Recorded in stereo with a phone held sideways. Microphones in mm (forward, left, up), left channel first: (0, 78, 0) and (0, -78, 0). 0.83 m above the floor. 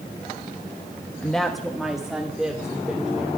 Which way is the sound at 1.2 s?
5° left (ahead or behind).